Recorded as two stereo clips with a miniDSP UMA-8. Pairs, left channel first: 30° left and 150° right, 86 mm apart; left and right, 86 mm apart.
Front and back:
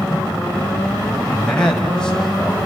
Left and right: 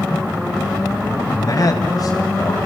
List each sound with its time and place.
1.1 s a man speaking: 105° left, 2.5 m